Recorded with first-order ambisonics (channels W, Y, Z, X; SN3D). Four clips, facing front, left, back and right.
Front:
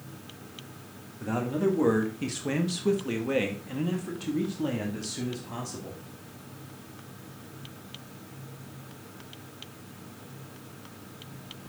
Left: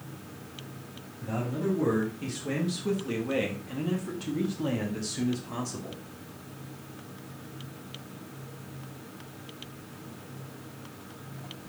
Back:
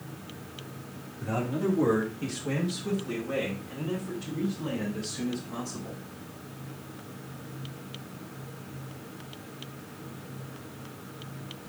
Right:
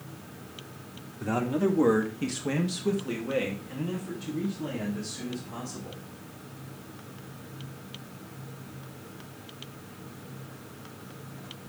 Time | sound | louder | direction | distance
1.2 | a man speaking | right 5 dB, front 2 dB | 80° right | 1.4 m